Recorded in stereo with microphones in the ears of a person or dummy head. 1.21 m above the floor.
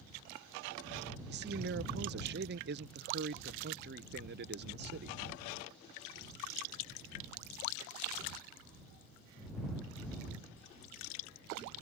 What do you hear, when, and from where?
1.3 s a man speaking: 50° right (ahead or behind)